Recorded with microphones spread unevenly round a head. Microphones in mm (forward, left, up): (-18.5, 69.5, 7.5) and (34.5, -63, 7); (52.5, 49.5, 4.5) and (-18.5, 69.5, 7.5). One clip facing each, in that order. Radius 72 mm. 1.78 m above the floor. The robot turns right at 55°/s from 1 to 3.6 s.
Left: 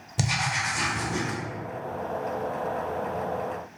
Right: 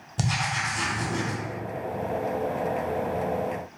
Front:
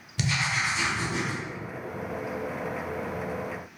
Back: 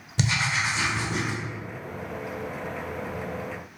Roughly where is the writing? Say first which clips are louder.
Even, back 2 dB; behind.